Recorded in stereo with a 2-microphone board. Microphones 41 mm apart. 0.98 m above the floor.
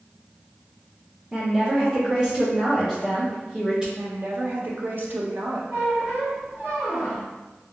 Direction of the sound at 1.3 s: 20° right (ahead or behind).